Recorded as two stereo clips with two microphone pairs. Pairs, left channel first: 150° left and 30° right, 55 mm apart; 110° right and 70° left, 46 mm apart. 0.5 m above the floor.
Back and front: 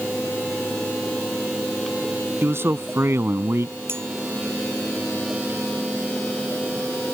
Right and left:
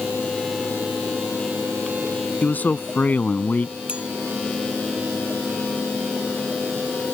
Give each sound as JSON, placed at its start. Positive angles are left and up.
{"t": 2.4, "sound": "a man speaking", "azimuth_deg": -65}
{"t": 3.9, "sound": "a clink", "azimuth_deg": 5}